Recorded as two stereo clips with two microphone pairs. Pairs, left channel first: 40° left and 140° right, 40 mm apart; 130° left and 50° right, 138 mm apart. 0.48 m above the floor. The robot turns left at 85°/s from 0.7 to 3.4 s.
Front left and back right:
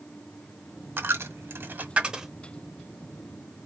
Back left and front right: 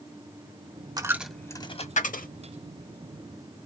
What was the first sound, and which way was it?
A dropped coin, 110° right.